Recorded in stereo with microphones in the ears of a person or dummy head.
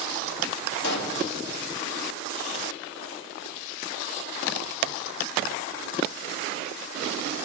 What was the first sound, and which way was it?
A pop, 60° left (ahead or behind).